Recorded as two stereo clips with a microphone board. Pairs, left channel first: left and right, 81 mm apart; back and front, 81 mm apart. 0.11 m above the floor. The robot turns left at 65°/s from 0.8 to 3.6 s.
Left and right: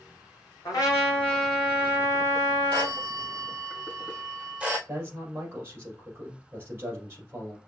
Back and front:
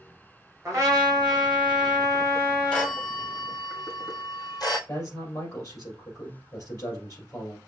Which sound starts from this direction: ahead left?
A trumpet, at 0.7 s.